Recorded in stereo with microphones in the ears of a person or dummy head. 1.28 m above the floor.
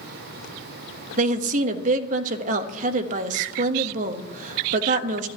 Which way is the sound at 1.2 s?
50° right (ahead or behind).